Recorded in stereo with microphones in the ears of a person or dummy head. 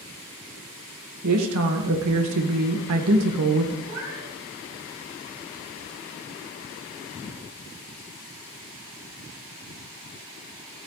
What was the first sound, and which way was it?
A woman speaking, 80° right.